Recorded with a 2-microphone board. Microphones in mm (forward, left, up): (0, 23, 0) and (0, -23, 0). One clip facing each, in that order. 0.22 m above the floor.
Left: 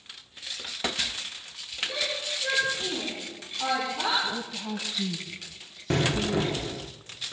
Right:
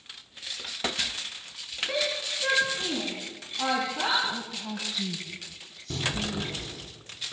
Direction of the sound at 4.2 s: 5° left (ahead or behind).